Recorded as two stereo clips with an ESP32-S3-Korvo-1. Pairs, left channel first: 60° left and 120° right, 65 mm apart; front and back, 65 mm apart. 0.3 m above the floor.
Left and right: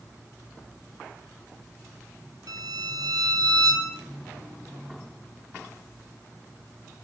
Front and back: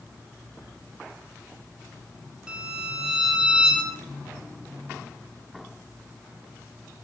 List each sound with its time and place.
2.5 s a violin: 105° right, 3 m